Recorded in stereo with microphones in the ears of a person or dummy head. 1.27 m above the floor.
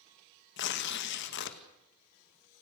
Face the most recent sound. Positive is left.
turn(degrees=55)  # may be behind; listen again after turning